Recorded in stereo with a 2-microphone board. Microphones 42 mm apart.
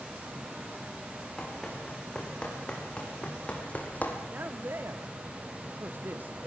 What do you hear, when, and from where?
1.4 s running footsteps: 15° left (ahead or behind), 6.5 m; by 4.2 s 35° left (ahead or behind), 3.5 m
4.3 s a man speaking: 45° right (ahead or behind), 1.1 m